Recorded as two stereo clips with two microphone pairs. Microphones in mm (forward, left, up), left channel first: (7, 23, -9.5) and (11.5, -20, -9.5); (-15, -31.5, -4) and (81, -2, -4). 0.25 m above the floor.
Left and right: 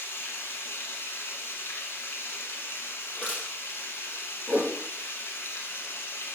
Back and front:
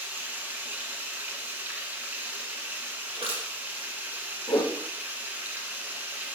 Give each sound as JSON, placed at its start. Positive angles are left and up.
{"t": 0.0, "sound": "running water", "azimuth_deg": 85, "distance_m": 1.5}
{"t": 3.2, "sound": "crushing", "azimuth_deg": 45, "distance_m": 4.5}
{"t": 4.5, "sound": "a whoosh", "azimuth_deg": -140, "distance_m": 3.0}